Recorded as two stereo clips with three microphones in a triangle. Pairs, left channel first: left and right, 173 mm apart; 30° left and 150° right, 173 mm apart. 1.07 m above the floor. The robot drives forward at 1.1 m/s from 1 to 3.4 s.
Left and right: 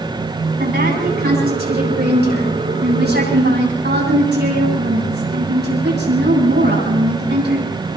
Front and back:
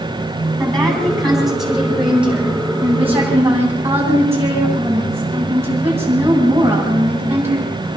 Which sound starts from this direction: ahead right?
A woman speaking, at 0.6 s.